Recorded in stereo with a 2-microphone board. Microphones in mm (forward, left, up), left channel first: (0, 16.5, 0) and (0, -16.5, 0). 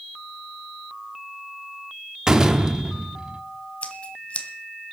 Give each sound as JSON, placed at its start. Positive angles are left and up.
{"t": 2.3, "sound": "a door slam", "side_deg": -20, "distance_m": 1.0}
{"t": 3.8, "sound": "scissors", "side_deg": 40, "distance_m": 1.6}